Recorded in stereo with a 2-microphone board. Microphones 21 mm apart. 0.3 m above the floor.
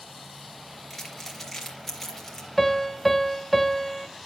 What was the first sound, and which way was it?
Crumpling, 15° left (ahead or behind).